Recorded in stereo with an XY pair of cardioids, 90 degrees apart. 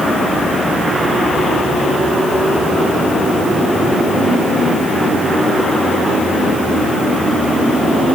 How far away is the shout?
No shout in this recording.